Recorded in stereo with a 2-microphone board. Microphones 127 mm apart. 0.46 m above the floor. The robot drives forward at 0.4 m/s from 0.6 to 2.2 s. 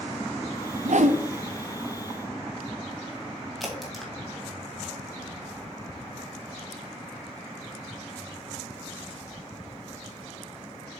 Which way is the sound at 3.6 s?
Centre (ahead or behind).